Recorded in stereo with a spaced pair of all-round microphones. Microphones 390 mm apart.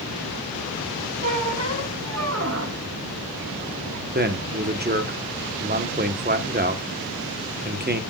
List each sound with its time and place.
1.2 s a squeak: 40° right (ahead or behind), 1.3 m
4.2 s a man speaking: 25° right (ahead or behind), 1.2 m